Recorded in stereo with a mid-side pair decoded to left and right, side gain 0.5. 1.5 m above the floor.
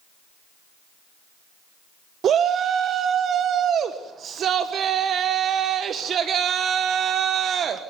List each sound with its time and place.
2.2 s a shout: 55° right, 1.2 m